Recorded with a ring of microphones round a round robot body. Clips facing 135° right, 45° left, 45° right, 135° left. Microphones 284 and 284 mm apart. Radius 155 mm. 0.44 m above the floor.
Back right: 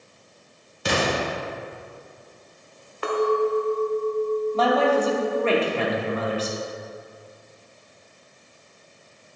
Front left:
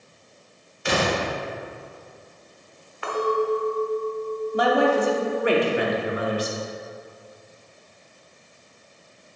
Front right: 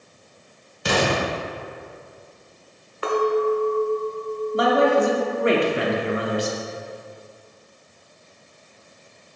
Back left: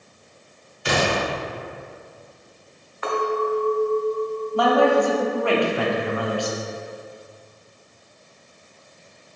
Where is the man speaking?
10° right, 1.1 m.